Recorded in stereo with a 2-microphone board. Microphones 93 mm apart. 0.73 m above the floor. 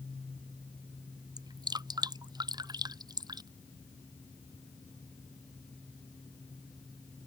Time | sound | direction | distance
1.4 | dripping | 50° right (ahead or behind) | ?